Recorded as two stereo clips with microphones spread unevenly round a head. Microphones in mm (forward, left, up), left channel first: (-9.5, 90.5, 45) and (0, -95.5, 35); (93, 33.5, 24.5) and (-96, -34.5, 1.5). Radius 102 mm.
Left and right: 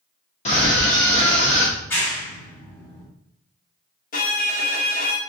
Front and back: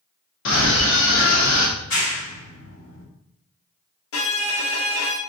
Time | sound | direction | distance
0.5 | a scream | 40° left | 0.8 m
1.8 | a clap | 15° left | 1.6 m
4.1 | a violin | 45° left | 0.9 m